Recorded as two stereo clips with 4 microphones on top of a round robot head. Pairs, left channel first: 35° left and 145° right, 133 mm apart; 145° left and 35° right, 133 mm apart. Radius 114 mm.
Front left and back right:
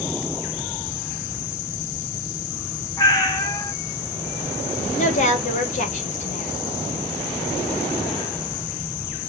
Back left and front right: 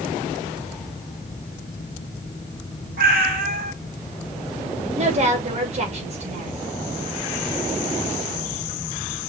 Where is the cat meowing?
30° right, 2 m.